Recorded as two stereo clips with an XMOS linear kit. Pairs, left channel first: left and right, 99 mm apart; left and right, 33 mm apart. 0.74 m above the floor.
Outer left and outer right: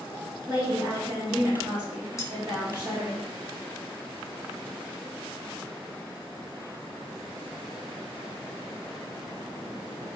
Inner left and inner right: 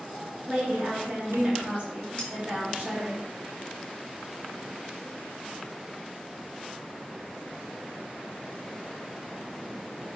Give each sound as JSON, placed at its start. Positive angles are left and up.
{"t": 0.5, "sound": "a woman speaking", "side_deg": -45, "distance_m": 1.1}
{"t": 2.2, "sound": "cutlery clinking", "side_deg": 30, "distance_m": 0.7}